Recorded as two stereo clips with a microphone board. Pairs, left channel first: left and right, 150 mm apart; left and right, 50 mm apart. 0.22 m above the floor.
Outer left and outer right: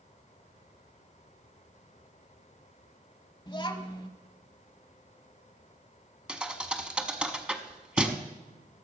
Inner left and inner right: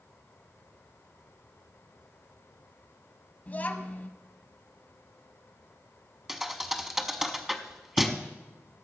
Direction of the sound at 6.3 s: 5° right (ahead or behind).